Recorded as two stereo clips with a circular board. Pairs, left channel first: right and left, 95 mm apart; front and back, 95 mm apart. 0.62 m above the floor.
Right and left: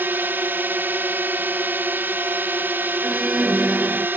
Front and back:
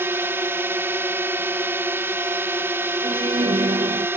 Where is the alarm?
170° left.